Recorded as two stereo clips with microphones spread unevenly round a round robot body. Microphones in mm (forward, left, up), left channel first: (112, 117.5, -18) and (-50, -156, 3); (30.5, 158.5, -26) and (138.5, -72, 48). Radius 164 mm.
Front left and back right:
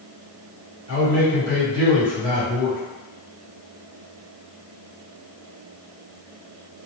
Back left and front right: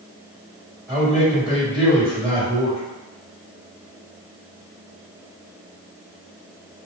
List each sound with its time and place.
0.9 s a man speaking: 170° right, 1.7 m